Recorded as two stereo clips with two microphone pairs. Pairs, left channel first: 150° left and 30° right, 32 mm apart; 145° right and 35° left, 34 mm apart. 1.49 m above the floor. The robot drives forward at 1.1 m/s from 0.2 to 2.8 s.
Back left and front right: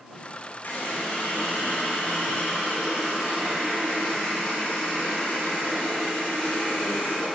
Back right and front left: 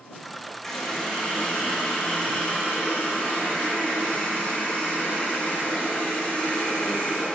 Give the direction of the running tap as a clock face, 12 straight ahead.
8 o'clock.